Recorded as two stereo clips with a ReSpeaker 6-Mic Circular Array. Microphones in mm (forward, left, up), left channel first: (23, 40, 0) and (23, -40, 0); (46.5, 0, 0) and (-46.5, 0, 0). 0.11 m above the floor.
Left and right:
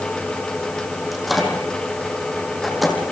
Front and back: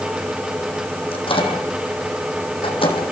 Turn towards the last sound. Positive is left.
turn(degrees=0)